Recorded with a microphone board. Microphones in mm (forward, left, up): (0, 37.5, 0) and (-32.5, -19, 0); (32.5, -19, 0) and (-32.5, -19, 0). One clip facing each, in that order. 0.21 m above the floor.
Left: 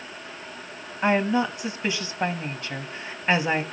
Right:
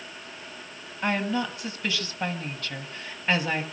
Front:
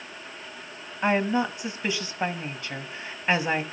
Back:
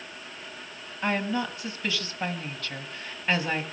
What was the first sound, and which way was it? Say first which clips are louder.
A woman speaking: left 5 dB, front 4 dB; 35° left.